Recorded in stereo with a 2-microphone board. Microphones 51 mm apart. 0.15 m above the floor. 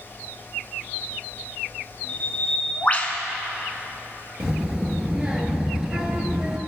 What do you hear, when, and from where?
2.1 s a bird: 30° left (ahead or behind), 0.7 m
4.4 s a child speaking: 15° right (ahead or behind), 1.3 m